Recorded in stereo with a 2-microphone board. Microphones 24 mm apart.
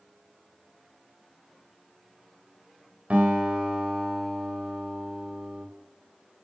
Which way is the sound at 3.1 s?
65° right (ahead or behind).